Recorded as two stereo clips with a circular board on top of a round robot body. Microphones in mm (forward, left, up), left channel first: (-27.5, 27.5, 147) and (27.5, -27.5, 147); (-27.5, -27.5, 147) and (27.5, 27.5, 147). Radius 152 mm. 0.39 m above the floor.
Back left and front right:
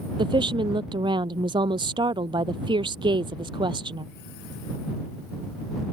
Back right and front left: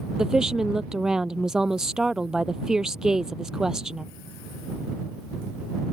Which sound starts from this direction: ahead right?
A woman speaking, at 0.2 s.